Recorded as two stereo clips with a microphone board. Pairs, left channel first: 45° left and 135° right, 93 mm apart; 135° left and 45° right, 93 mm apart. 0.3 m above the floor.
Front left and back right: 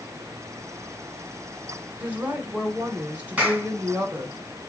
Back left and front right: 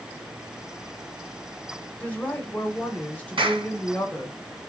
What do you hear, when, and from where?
2.0 s a woman speaking: straight behind, 0.9 m
3.4 s a clap: 60° right, 1.8 m